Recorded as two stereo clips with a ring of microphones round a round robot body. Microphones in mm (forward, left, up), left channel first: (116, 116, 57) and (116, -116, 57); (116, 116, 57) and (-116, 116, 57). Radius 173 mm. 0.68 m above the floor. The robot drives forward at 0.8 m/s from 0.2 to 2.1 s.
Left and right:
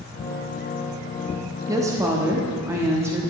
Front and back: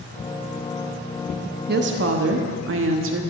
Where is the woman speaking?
160° right, 0.7 m; by 3.2 s 170° right, 0.9 m.